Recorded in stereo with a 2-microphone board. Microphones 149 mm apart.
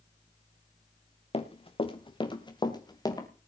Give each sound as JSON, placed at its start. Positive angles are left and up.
{"t": 1.3, "sound": "running footsteps", "side_deg": 40, "distance_m": 1.9}